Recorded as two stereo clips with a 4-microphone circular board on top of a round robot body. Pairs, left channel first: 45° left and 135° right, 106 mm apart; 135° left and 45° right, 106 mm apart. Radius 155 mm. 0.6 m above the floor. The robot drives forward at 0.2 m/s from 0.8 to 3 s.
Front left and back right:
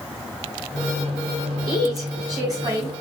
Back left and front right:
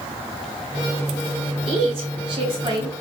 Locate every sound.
1.7 s a woman speaking: 80° right, 3 m; by 2.9 s 85° right, 3 m